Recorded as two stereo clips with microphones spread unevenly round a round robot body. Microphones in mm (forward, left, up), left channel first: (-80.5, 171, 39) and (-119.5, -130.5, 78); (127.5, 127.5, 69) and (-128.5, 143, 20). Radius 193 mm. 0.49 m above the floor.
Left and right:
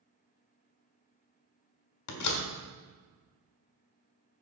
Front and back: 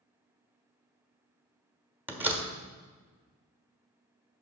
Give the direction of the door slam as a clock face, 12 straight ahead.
9 o'clock.